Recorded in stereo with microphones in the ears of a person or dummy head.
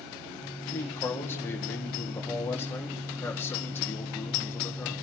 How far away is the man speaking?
About 1.9 m.